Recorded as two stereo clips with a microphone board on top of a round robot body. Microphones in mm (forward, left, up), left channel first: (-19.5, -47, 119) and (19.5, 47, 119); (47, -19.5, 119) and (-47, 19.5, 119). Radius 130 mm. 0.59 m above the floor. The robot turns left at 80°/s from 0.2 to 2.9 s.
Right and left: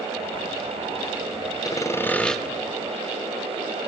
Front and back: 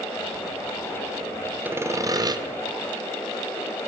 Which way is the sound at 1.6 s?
140° right.